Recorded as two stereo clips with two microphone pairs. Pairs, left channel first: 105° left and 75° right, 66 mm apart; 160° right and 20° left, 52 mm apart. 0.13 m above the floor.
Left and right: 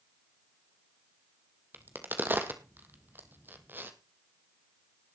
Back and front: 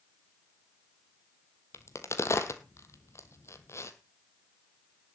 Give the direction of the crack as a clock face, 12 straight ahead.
4 o'clock.